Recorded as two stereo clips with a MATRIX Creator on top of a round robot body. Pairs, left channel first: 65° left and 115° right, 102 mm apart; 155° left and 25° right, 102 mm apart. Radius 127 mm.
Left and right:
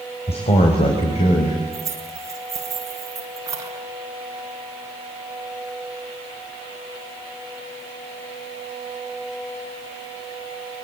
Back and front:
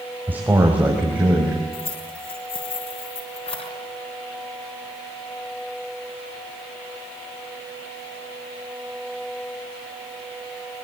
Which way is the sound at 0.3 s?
50° left.